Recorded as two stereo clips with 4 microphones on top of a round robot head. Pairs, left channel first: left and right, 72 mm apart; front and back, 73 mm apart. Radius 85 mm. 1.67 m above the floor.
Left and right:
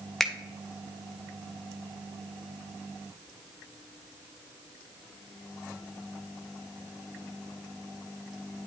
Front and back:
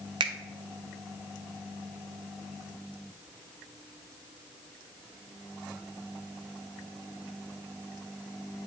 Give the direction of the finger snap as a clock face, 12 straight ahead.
6 o'clock.